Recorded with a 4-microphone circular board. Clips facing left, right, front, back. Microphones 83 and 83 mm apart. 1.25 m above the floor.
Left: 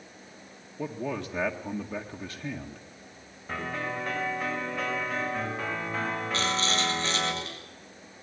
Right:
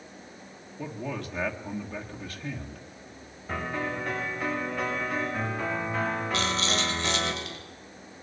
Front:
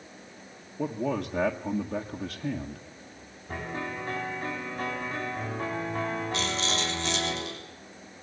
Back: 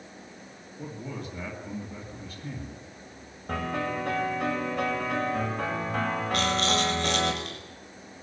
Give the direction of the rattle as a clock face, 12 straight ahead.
7 o'clock.